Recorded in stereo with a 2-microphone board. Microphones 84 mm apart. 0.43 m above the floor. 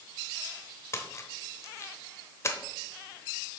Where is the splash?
35° left (ahead or behind), 0.8 m.